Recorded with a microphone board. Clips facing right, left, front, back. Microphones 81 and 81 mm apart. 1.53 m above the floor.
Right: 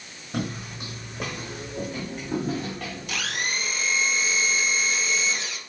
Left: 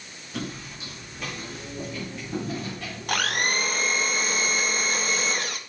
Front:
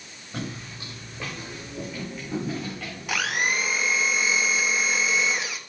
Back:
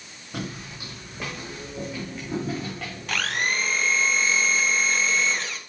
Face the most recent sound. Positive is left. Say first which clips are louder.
# left 6 dB, front 1 dB
turn(degrees=75)